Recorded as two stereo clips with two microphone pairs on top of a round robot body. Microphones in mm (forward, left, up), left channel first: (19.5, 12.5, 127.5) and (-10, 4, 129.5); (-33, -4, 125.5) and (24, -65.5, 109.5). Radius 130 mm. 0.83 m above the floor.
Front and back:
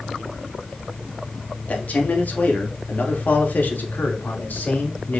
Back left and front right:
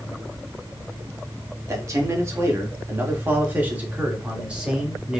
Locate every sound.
1.7 s a man speaking: straight ahead, 3 m; by 5.2 s 30° left, 3.5 m